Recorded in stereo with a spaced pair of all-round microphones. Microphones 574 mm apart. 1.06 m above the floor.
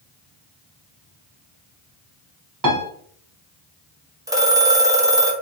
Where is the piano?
35° right (ahead or behind), 0.6 m.